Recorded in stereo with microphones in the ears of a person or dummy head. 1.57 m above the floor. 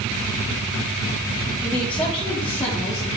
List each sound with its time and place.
1.6 s a woman speaking: 5° left (ahead or behind), 2.5 m; by 3.1 s 25° left (ahead or behind), 1.4 m